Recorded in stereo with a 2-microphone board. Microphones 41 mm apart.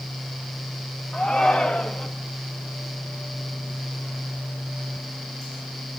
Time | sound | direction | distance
1.1 | a shout | 25° left (ahead or behind) | 2 m